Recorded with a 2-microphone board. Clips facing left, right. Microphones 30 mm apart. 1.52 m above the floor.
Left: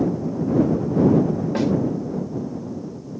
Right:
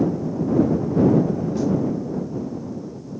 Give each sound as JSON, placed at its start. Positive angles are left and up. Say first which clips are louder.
{"t": 1.6, "sound": "a snare drum", "louder": "left 2 dB", "side_deg": 65}